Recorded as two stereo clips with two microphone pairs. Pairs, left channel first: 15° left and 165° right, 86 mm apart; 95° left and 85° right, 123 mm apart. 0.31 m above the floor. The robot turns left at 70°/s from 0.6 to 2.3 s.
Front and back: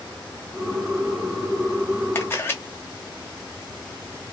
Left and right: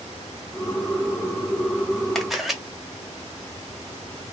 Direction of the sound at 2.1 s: 10° left.